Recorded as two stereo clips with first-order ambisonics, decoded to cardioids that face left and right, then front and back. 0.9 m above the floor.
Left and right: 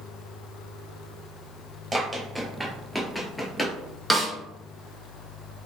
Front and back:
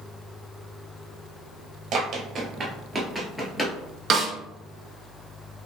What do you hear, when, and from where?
1.9 s running footsteps: 160° right, 1.0 m; by 3.8 s 45° left, 0.9 m
4.1 s a snare drum: 170° right, 0.6 m